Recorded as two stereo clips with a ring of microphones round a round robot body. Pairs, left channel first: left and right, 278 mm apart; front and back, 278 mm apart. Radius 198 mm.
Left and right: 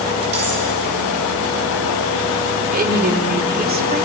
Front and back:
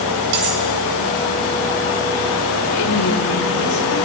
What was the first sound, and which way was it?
Cutlery clinking, 155° right.